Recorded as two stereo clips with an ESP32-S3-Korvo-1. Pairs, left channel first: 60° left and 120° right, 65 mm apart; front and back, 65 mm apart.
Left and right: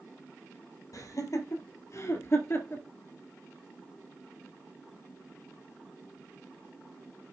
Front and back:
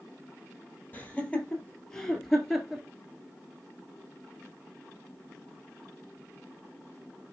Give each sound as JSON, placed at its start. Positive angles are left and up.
{"t": 0.9, "sound": "laughter", "azimuth_deg": 60, "distance_m": 2.5}